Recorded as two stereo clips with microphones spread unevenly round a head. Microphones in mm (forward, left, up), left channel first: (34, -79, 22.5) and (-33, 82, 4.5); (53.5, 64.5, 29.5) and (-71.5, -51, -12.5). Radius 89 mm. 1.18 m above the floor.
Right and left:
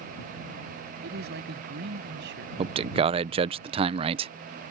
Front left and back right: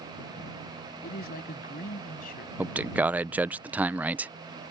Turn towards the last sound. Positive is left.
turn(degrees=155)